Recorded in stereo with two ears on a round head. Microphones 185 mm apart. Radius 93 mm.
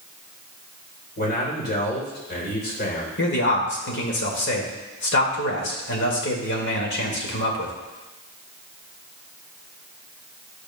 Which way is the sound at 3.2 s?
55° left (ahead or behind).